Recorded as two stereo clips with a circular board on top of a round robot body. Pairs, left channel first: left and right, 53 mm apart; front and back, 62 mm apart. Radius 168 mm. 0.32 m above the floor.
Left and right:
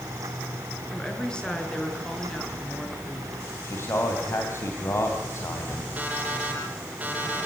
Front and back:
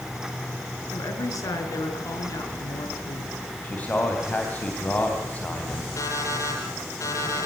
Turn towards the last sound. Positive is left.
turn(degrees=-25)